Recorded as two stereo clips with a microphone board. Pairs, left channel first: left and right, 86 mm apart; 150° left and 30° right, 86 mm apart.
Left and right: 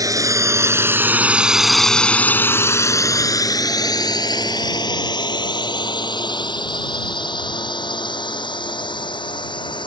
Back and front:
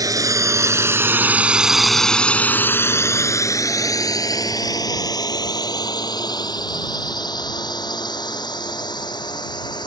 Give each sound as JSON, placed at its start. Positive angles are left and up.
{"t": 0.0, "sound": "a drone", "azimuth_deg": -60}